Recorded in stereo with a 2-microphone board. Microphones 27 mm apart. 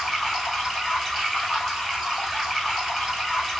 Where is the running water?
10° right (ahead or behind), 1.6 m.